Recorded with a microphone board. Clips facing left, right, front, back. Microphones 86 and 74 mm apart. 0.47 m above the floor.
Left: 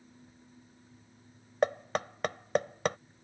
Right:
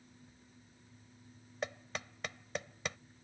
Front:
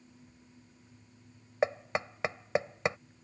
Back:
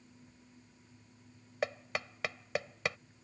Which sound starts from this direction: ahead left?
Knocking, at 1.6 s.